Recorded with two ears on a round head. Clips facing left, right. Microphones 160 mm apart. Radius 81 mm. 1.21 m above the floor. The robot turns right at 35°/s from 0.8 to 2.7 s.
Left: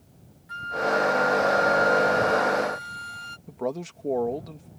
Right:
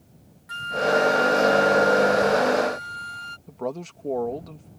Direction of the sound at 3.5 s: 5° left (ahead or behind).